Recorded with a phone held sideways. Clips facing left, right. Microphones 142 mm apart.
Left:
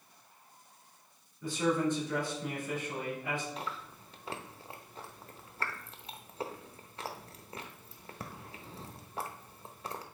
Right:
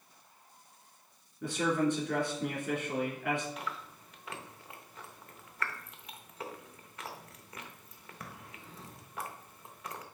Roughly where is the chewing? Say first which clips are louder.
Left 1 dB; left.